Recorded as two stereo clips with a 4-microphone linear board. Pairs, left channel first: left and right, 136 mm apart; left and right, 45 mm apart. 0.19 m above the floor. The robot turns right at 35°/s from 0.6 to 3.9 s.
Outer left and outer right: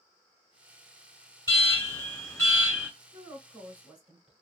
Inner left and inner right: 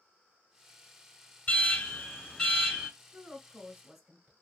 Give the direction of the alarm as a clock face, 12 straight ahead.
8 o'clock.